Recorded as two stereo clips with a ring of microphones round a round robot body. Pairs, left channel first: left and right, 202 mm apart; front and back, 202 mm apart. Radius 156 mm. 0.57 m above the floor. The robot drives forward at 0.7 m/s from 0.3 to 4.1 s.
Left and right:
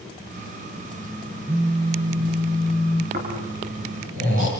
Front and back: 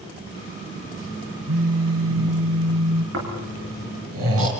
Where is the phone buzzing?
165° right, 1.8 m; by 3.0 s 170° right, 3 m.